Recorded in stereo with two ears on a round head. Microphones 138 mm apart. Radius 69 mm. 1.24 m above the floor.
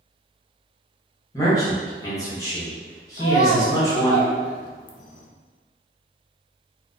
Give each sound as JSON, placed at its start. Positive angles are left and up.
{"t": 1.3, "sound": "a man speaking", "side_deg": 20, "distance_m": 1.1}
{"t": 3.2, "sound": "a child speaking", "side_deg": 55, "distance_m": 0.6}